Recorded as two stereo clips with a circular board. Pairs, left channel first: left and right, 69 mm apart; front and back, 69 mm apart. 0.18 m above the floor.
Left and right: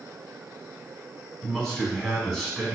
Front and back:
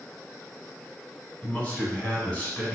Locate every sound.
1.4 s a man speaking: 10° left, 1.1 m